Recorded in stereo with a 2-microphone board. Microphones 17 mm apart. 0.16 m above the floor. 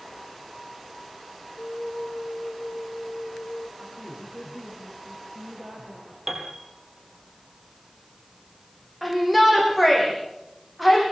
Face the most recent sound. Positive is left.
turn(degrees=-5)  # may be behind; listen again after turning